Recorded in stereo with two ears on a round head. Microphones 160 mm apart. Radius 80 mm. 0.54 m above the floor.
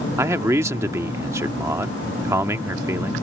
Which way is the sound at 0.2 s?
15° right (ahead or behind).